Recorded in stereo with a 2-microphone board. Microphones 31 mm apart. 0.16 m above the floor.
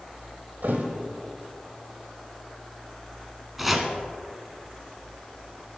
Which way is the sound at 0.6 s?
75° right (ahead or behind).